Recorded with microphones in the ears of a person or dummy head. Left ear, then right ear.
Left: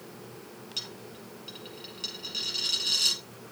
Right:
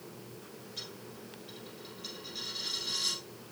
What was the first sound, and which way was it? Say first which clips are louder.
A dropped coin: left 7 dB; 40° left (ahead or behind).